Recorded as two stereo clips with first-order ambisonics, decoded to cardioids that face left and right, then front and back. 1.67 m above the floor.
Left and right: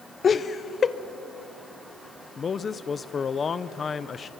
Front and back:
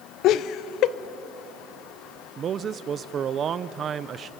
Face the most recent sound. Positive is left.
turn(degrees=140)